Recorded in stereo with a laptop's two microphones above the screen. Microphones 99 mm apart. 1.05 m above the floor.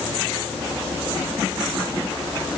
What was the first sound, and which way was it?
Only background noise.